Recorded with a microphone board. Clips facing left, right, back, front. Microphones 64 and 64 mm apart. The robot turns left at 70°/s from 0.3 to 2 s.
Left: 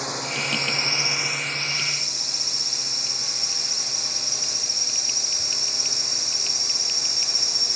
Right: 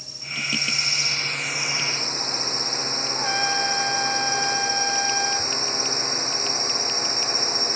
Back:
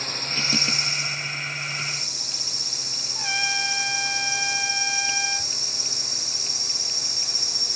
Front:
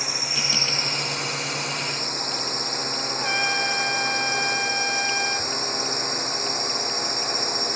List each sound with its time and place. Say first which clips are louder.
0.0 s a drone: left 5 dB, even; 80° left; by 7.8 s 40° right
3.1 s a trumpet: right 14 dB, front 2 dB; 80° right